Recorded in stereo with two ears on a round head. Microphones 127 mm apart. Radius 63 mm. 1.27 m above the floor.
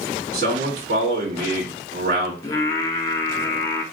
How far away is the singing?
About 0.8 m.